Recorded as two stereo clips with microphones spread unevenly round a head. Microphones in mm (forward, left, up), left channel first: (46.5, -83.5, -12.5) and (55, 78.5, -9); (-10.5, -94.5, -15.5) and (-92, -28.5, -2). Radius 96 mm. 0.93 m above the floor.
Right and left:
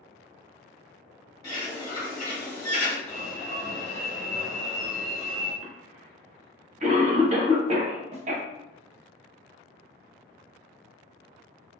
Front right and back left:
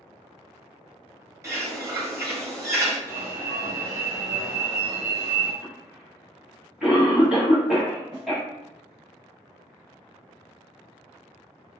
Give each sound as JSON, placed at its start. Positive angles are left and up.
{"t": 1.4, "sound": "a bird", "azimuth_deg": -165, "distance_m": 1.5}
{"t": 3.1, "sound": "an alarm", "azimuth_deg": -165, "distance_m": 0.9}
{"t": 5.6, "sound": "a cough", "azimuth_deg": 50, "distance_m": 0.9}
{"t": 8.1, "sound": "a snare drum", "azimuth_deg": 50, "distance_m": 0.7}